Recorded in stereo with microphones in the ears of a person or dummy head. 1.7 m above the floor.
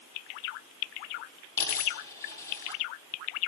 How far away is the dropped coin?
About 5 m.